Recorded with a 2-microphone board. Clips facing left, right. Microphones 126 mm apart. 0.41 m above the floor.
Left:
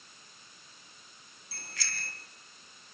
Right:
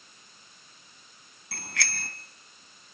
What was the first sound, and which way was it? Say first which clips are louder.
A bicycle bell: right 8 dB; 75° right (ahead or behind).